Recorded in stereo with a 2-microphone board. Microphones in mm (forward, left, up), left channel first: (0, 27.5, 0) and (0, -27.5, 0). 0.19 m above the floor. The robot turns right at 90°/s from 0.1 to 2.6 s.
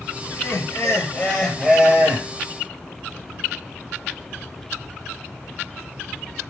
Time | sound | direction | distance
0.3 | laughter | 65° left | 3 m